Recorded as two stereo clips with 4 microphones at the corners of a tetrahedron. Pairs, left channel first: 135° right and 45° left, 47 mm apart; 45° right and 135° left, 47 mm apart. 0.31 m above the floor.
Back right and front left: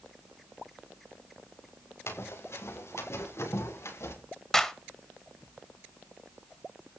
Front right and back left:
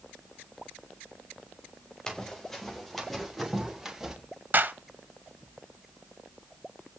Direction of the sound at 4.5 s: 150° left.